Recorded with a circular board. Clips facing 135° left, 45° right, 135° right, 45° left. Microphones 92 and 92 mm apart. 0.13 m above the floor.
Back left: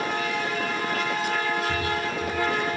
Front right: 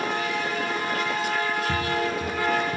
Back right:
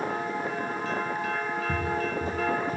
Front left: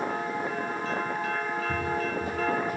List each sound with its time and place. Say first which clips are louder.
1.7 s footsteps: front right 2 dB, back right 1 dB; 70° right, 3.5 m; by 2.8 s 80° right, 5 m